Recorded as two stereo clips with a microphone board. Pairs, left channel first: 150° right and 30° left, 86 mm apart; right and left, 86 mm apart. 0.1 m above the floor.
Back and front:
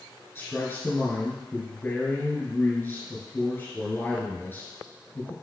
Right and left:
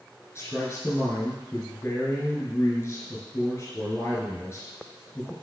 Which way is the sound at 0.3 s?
115° right.